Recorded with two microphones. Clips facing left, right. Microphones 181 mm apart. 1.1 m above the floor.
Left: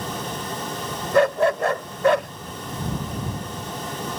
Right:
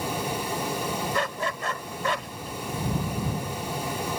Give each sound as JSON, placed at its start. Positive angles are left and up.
{"t": 1.1, "sound": "a dog barking", "side_deg": 55}